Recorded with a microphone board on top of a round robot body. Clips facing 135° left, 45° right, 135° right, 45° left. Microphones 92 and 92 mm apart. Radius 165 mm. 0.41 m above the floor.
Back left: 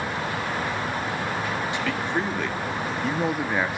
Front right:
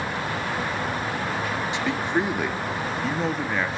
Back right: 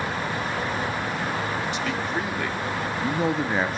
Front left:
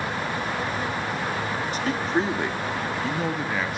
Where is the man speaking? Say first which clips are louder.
Front right 4 dB, front left 3 dB; 15° left, 1.9 m; by 3.8 s 160° right, 1.7 m.